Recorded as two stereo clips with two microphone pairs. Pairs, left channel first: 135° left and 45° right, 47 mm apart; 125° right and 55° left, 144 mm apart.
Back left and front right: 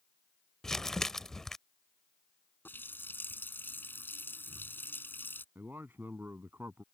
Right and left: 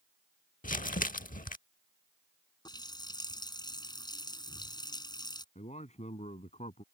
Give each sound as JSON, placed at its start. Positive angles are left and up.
{"t": 0.6, "sound": "crumpling", "azimuth_deg": -145}
{"t": 2.6, "sound": "a running tap", "azimuth_deg": 175}
{"t": 5.5, "sound": "a man speaking", "azimuth_deg": -85}